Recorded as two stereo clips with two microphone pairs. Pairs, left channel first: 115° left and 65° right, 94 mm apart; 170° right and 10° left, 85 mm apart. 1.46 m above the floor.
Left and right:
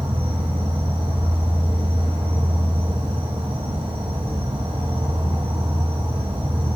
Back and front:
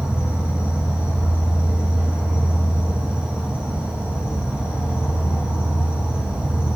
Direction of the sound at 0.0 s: 70° right.